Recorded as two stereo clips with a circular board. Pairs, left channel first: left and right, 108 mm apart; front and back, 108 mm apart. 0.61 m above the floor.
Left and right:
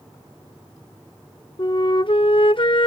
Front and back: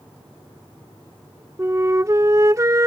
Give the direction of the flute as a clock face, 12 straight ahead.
8 o'clock.